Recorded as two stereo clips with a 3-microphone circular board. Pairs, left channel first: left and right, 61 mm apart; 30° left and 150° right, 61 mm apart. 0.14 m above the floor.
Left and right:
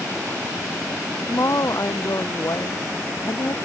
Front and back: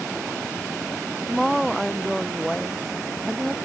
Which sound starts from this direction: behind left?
A woman speaking, at 1.3 s.